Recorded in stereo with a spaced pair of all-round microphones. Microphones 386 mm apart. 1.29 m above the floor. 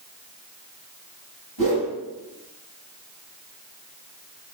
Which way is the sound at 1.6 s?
70° left (ahead or behind).